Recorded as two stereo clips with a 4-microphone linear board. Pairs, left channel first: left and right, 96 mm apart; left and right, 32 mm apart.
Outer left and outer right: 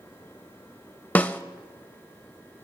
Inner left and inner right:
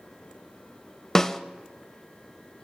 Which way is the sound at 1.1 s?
15° left (ahead or behind).